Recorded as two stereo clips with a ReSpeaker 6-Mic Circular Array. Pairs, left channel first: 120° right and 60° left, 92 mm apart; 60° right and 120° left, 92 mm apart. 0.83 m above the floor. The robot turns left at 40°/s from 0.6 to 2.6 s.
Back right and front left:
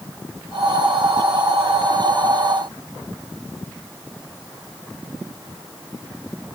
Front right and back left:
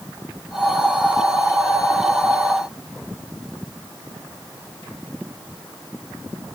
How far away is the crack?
I don't hear a crack.